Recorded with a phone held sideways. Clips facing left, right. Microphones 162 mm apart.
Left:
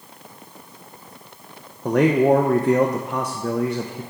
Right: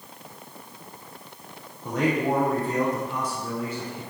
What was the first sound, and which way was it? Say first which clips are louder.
A man speaking: left 8 dB; 70° left (ahead or behind).